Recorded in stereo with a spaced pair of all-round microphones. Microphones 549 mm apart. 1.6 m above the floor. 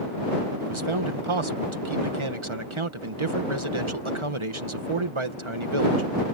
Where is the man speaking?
60° right (ahead or behind).